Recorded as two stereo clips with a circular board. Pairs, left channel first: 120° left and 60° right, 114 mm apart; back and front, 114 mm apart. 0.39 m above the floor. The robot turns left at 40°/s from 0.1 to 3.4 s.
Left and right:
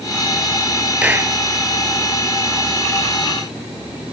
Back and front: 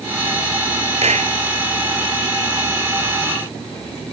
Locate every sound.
1.0 s a clap: 20° left; by 1.4 s 5° left